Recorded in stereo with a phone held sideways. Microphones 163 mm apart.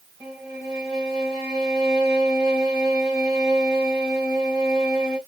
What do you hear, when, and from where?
0.2 s a violin: centre (ahead or behind), 2.0 m